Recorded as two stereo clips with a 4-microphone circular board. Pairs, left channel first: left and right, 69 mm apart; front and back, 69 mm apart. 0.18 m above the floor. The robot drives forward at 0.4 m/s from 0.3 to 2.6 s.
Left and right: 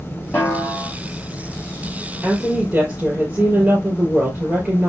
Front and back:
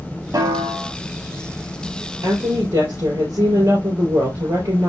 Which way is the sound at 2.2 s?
165° right.